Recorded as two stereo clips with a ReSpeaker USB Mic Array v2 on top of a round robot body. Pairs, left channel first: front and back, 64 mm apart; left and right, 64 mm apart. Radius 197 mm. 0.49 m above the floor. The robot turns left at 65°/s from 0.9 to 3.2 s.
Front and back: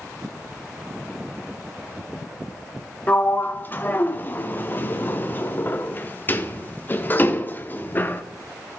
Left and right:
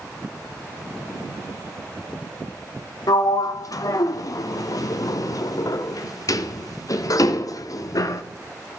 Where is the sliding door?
65° left, 0.6 m; by 8.2 s 60° left, 0.6 m.